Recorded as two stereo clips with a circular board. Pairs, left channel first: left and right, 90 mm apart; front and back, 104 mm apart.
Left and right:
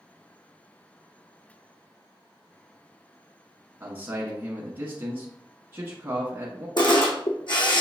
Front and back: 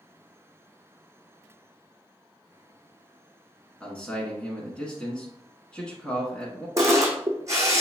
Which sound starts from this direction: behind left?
A camera shutter, at 6.8 s.